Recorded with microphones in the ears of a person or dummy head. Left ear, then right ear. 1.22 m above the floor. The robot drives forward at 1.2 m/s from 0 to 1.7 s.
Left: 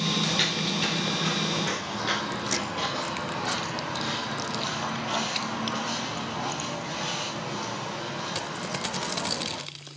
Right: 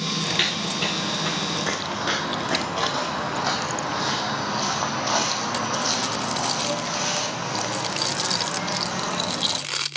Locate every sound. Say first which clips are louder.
0.2 s footsteps: right 2 dB; 15° right (ahead or behind), 1.8 m; by 9.6 s 70° right (ahead or behind), 5.5 m